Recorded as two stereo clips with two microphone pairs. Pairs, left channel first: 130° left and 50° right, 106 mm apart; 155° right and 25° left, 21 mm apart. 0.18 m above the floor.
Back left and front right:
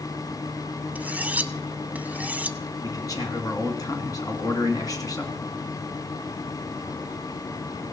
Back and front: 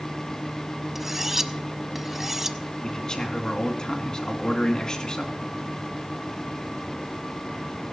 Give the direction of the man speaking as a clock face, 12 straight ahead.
6 o'clock.